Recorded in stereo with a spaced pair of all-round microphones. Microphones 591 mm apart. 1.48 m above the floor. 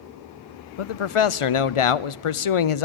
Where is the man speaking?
60° left (ahead or behind), 0.5 m.